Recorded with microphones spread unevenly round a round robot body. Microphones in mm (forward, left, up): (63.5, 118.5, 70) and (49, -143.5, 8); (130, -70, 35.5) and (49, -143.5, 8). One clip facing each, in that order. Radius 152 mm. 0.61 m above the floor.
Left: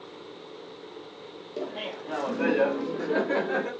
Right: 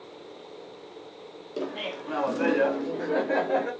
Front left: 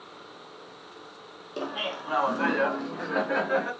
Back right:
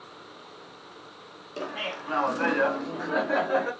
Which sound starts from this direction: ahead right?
Laughter, at 1.6 s.